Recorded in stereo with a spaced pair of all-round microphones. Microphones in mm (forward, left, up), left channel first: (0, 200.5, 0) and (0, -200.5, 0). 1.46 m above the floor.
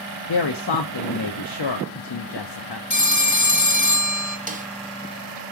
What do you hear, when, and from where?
0.3 s a woman speaking: 80° left, 0.5 m
2.9 s a phone ringing: 50° left (ahead or behind), 0.7 m
4.5 s a snare drum: 20° right (ahead or behind), 0.5 m